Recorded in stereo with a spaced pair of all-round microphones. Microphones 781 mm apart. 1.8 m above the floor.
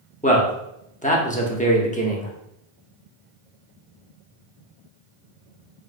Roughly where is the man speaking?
Centre.